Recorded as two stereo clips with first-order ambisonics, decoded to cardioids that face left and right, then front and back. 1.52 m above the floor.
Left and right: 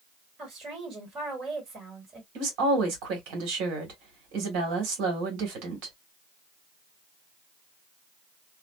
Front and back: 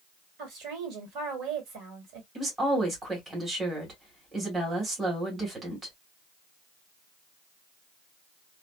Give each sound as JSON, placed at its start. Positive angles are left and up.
{"t": 0.4, "sound": "a woman speaking", "azimuth_deg": -150, "distance_m": 1.7}
{"t": 2.4, "sound": "a woman speaking", "azimuth_deg": -105, "distance_m": 1.5}